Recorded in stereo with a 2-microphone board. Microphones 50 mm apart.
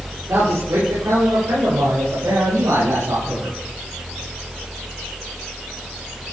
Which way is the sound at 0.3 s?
80° right.